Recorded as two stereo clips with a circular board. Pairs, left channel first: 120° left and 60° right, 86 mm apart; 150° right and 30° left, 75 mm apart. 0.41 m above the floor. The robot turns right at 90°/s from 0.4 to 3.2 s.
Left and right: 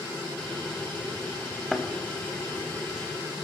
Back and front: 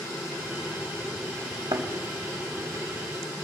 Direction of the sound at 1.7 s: 25° left.